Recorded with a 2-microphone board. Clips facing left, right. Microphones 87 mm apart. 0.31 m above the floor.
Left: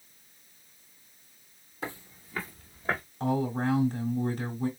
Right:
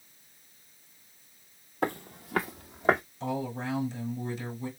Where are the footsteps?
55° right (ahead or behind), 0.6 m; by 3.0 s 70° right (ahead or behind), 1.1 m.